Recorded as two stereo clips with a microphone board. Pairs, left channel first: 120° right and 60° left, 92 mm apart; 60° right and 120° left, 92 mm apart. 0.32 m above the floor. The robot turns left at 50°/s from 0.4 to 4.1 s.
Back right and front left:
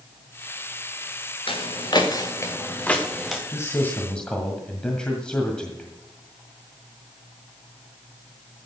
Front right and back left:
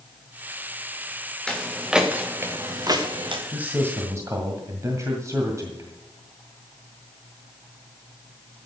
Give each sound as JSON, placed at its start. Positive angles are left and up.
{"t": 1.5, "sound": "footsteps", "azimuth_deg": -140, "distance_m": 3.0}
{"t": 3.5, "sound": "a man speaking", "azimuth_deg": -170, "distance_m": 1.9}